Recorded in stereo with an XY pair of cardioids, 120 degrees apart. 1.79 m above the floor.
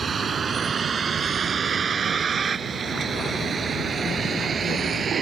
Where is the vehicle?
35° right.